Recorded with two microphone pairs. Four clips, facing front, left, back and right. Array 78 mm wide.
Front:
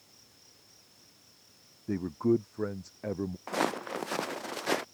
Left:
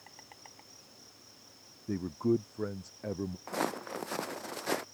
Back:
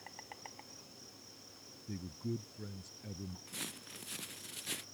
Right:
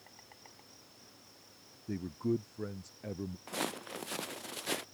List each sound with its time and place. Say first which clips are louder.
0.0 s an insect: left 3 dB, back 13 dB; 160° left
1.9 s a man speaking: left 4 dB, front 15 dB; 25° left
3.5 s footsteps: left 5 dB, front 19 dB; 20° left; by 4.8 s 25° left